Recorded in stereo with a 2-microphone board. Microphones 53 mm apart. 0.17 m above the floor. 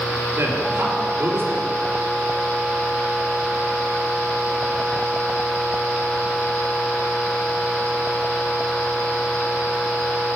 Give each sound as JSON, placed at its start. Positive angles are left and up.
{"t": 0.4, "sound": "a man speaking", "side_deg": -45, "distance_m": 2.5}